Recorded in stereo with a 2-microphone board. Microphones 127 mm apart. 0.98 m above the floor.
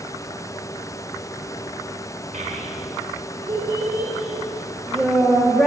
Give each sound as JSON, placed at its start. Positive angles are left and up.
{"t": 2.3, "sound": "a child speaking", "side_deg": -80, "distance_m": 1.4}